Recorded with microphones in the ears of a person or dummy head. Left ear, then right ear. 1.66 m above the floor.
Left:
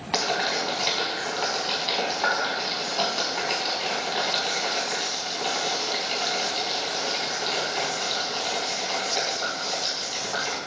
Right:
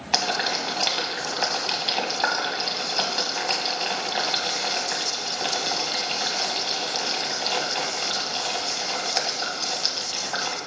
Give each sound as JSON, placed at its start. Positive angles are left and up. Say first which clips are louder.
{"t": 0.1, "sound": "boiling", "louder": "right 1 dB", "side_deg": -25, "distance_m": 1.6}